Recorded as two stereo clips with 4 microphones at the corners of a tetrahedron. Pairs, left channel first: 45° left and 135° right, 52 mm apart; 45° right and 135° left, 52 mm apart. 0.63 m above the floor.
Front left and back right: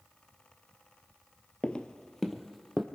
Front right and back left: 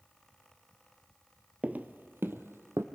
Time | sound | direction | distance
1.6 | footsteps | 90° left | 0.7 m